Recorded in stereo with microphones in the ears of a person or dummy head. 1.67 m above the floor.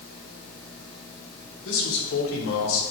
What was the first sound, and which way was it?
A man speaking, 85° left.